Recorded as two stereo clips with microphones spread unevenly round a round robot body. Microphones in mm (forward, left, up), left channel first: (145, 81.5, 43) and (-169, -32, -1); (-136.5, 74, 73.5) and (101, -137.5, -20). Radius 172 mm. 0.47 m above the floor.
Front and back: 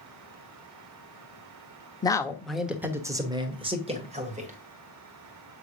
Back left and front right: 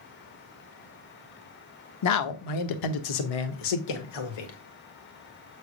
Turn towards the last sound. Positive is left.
turn(degrees=135)